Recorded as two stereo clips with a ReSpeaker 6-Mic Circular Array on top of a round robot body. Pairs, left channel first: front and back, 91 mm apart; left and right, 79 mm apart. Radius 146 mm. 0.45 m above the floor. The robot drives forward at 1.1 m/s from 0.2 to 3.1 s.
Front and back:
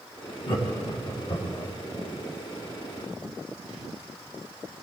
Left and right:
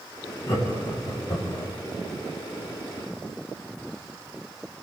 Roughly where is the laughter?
Ahead left.